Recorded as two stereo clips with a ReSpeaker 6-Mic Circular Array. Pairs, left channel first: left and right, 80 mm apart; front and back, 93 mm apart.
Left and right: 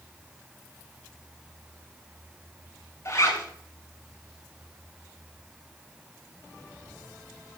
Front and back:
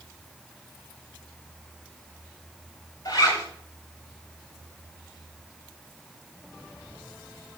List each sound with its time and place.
3.0 s a zipper: 45° left, 6 m